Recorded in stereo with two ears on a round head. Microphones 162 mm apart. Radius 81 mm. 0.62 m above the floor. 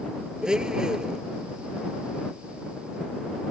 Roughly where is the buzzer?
No buzzer in this recording.